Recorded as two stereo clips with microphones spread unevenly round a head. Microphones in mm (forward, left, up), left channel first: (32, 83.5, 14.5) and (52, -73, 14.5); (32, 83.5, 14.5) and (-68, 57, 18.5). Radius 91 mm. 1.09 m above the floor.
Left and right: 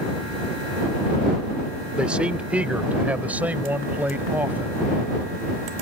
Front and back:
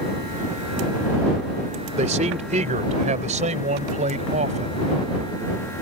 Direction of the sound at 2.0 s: 165° right.